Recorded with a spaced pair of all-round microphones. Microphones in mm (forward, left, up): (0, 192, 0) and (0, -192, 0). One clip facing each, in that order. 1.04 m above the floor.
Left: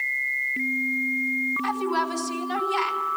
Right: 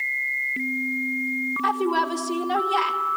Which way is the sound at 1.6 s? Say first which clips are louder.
Right 4 dB; 70° right (ahead or behind).